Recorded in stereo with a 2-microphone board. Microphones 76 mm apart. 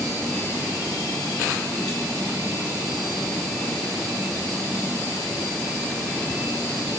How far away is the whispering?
I don't hear whispering.